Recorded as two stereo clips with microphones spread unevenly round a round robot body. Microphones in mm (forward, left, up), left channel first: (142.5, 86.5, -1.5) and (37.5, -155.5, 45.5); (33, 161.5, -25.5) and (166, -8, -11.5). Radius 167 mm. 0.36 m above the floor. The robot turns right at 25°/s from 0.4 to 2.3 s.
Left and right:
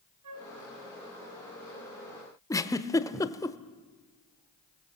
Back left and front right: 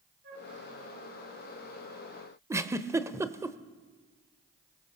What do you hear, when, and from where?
0.2 s a flute: 115° right, 3 m; by 0.5 s 110° right, 3 m
2.5 s a giggle: 20° left, 1.0 m